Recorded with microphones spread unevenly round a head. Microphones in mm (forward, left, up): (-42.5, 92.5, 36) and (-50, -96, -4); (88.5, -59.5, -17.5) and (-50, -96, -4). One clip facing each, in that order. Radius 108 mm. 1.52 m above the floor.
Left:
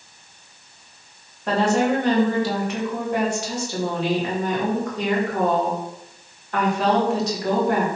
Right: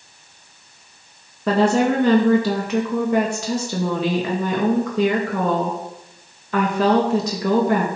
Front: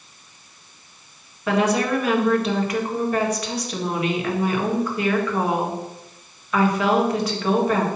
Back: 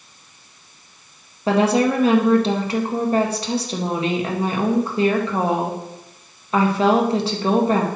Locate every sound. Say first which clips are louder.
1.5 s a woman speaking: right 3 dB, back 3 dB; 105° right, 1.9 m